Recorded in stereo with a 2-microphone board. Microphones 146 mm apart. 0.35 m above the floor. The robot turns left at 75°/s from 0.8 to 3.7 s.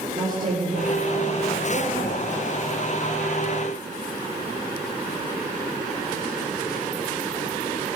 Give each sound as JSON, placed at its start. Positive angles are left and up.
{"t": 0.2, "sound": "a woman speaking", "azimuth_deg": -60, "distance_m": 6.5}